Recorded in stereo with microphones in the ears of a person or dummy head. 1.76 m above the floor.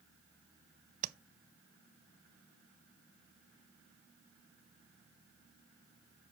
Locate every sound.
1.0 s tapping: 50° right (ahead or behind), 0.6 m